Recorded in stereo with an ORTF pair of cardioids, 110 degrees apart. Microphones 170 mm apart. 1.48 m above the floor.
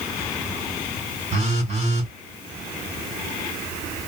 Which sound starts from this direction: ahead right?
A phone buzzing, at 1.3 s.